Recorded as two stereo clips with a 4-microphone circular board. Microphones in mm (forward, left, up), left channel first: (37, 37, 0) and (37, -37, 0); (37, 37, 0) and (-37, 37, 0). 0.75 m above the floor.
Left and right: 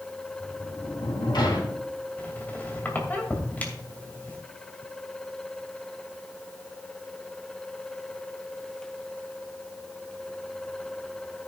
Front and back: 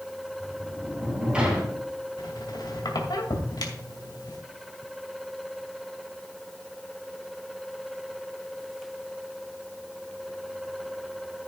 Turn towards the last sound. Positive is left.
turn(degrees=20)